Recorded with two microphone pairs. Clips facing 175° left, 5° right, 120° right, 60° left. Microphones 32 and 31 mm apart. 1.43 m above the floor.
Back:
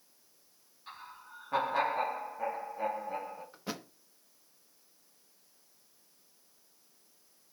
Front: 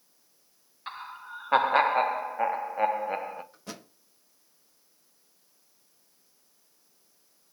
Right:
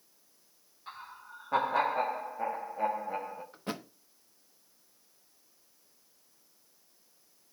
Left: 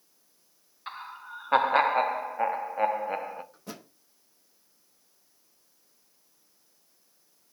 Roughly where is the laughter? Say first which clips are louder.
Front 9 dB, left 6 dB; ahead left.